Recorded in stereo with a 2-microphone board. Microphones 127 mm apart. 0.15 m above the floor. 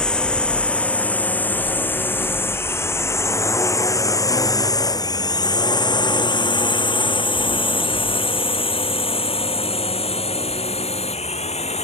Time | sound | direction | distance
0.0 | a drone | 5° left (ahead or behind) | ?